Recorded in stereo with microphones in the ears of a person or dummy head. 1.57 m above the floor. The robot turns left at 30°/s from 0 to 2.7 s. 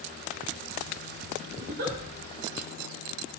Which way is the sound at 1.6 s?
55° right (ahead or behind).